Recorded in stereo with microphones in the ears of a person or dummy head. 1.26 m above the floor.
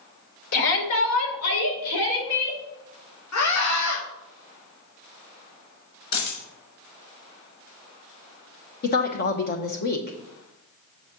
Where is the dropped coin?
75° left (ahead or behind), 3.5 m.